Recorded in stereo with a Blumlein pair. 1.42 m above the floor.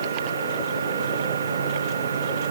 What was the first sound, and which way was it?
A machine running, 65° right.